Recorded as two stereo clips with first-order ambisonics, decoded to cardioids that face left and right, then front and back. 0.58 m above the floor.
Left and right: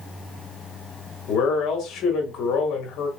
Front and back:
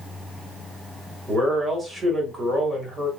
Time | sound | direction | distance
1.3 | a man speaking | 100° left | 1.4 m